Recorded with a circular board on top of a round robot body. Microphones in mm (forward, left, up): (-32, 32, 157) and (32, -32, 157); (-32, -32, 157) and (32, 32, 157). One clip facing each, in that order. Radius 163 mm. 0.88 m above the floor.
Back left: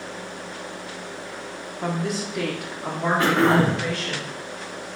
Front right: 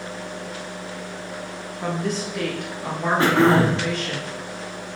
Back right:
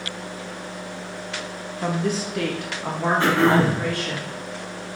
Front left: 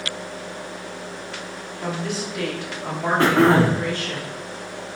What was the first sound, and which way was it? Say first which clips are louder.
A woman speaking: front right 1 dB, back right 3 dB; 150° right.